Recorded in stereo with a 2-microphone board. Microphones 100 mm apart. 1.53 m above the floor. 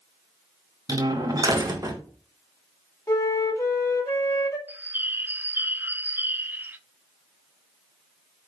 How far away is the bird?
About 0.6 m.